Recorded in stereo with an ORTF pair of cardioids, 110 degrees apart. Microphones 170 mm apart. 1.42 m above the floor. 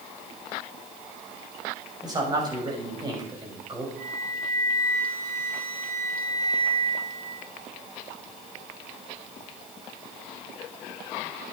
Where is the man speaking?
25° right, 6.5 m.